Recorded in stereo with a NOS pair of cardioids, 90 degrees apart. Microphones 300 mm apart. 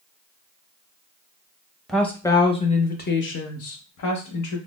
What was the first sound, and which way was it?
A woman speaking, straight ahead.